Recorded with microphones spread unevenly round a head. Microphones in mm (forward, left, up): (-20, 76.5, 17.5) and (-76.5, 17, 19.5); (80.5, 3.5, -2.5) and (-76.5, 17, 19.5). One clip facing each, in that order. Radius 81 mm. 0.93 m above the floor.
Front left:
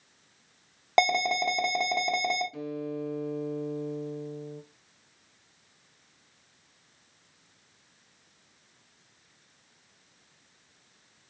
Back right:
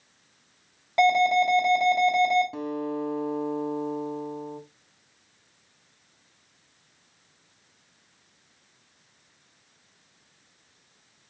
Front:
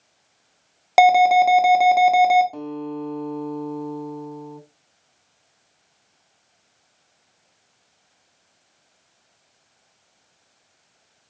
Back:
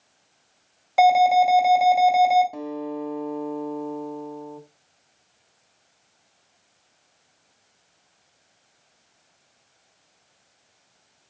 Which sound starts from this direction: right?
A guitar, at 2.5 s.